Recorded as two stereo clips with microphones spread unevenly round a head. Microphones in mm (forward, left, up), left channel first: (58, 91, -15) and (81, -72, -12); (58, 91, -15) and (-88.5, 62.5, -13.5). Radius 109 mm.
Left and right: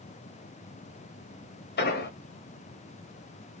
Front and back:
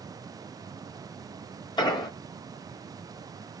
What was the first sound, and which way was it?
An explosion, 75° left.